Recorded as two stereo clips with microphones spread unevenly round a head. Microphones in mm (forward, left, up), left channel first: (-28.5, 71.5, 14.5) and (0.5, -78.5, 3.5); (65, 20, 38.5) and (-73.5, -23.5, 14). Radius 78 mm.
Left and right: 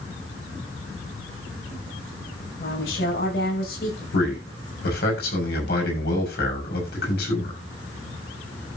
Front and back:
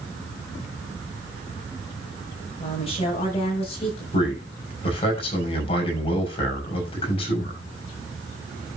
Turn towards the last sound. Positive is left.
turn(degrees=70)